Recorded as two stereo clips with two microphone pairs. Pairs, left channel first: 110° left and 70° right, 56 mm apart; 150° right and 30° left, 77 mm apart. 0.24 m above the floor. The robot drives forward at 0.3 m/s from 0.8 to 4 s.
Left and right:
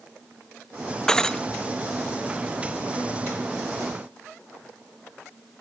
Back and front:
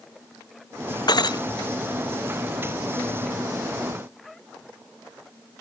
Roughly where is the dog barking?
I don't hear a dog barking.